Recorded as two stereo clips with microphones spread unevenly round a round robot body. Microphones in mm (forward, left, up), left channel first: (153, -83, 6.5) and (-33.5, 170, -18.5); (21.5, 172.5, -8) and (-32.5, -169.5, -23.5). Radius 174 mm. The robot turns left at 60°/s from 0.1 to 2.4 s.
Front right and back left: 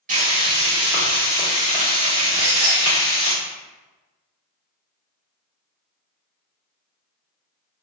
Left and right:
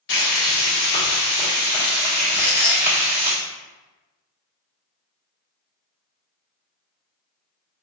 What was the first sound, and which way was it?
Frying, 100° left.